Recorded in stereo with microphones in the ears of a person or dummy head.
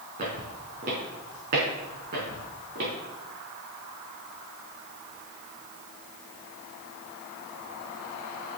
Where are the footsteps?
50° right (ahead or behind), 3 m; by 2.9 s 60° right (ahead or behind), 4 m.